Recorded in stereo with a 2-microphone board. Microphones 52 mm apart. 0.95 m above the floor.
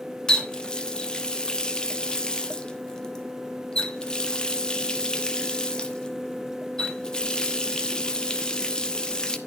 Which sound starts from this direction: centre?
A running tap, at 0.3 s.